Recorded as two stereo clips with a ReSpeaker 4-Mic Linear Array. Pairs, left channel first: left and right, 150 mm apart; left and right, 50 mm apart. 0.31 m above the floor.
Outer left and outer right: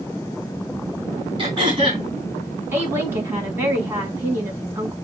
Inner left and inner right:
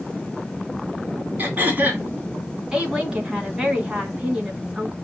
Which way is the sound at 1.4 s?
35° right (ahead or behind).